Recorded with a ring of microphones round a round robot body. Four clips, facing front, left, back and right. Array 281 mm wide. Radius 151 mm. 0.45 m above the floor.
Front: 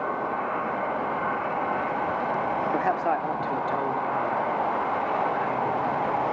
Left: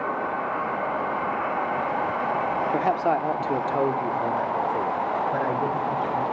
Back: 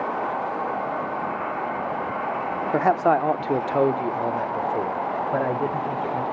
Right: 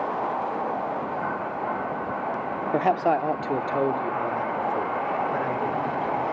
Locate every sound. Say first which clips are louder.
2.7 s a man speaking: right 3 dB, back 9 dB; 150° right, 1.0 m; by 6.2 s 170° left, 2.5 m